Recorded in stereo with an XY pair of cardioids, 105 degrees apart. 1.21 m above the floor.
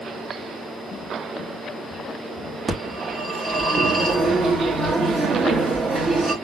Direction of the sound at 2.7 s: 35° right.